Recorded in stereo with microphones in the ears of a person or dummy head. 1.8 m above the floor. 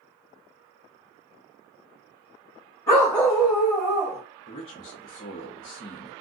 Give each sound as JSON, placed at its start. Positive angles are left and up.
{"t": 2.9, "sound": "a dog barking", "side_deg": 10, "distance_m": 1.3}
{"t": 4.5, "sound": "a man speaking", "side_deg": 35, "distance_m": 0.7}